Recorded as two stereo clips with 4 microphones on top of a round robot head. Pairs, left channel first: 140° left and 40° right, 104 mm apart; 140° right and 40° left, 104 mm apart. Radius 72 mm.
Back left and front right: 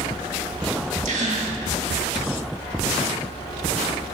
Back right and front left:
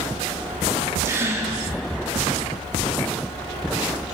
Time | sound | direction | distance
1.1 | a gasp | 30° right | 1.8 m